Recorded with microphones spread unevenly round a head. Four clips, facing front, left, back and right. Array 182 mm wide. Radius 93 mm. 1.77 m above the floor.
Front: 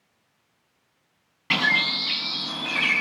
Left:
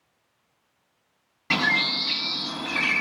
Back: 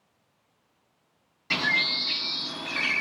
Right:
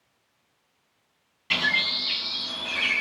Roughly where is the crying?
No crying in this recording.